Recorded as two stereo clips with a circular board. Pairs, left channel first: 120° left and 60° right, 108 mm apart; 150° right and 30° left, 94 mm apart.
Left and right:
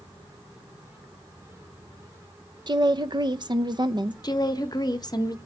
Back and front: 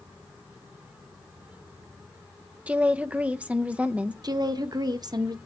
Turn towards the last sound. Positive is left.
turn(degrees=70)